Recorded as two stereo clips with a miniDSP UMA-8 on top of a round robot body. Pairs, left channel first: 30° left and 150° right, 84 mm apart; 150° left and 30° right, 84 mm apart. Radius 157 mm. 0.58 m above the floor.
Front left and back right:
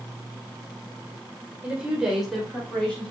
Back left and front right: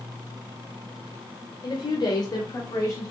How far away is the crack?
No crack in this recording.